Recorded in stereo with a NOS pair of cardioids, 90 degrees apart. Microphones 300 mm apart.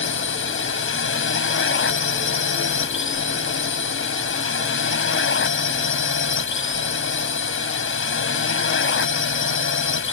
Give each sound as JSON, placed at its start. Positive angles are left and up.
{"t": 0.0, "sound": "a drone", "azimuth_deg": 40}